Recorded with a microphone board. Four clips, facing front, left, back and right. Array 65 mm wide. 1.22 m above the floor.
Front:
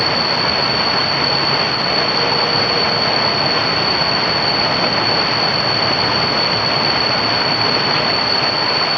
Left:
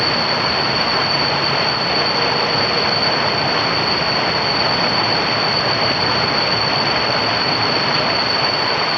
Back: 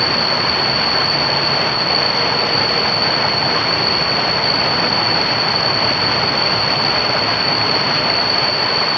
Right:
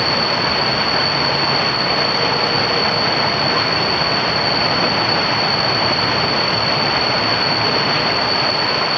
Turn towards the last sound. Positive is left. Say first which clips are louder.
# even, front 1 dB
turn(degrees=-125)